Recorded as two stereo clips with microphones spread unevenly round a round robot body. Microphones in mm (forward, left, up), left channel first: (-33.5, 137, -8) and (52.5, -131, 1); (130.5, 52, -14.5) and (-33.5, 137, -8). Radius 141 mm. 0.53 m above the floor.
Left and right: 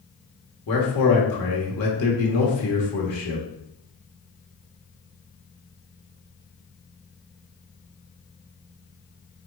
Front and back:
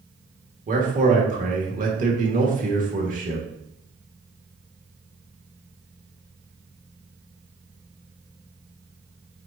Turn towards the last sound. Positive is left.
turn(degrees=120)